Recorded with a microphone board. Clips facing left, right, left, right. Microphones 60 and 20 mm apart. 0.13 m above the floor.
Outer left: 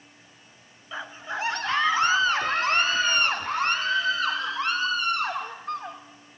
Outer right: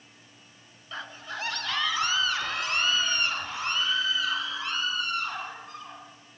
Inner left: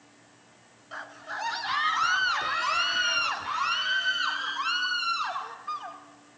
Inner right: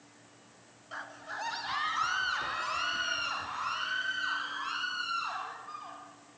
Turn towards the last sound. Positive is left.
turn(degrees=55)  # may be behind; listen again after turning